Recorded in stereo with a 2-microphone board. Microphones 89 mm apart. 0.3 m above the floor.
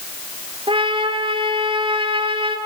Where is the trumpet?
75° right (ahead or behind), 3 m.